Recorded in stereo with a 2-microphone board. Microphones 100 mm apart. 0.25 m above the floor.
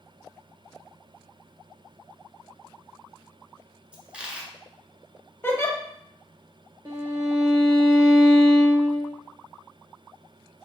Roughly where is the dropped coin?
Centre.